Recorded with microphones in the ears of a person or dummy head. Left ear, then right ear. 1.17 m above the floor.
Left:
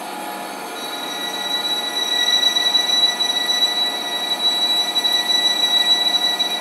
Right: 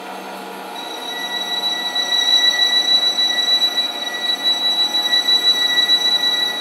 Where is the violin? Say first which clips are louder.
Right 1 dB; 35° left (ahead or behind), 5.5 m.